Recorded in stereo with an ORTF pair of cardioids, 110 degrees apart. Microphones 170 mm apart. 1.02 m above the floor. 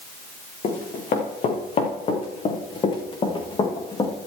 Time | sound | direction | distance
0.6 | running footsteps | 50° left | 4 m